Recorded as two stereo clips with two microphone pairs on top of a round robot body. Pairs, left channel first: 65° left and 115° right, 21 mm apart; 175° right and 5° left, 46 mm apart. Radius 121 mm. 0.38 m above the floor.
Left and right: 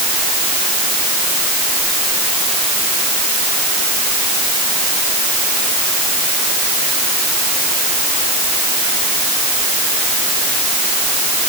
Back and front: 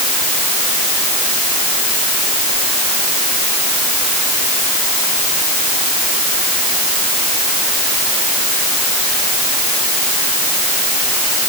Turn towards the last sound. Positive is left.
No sound to turn to.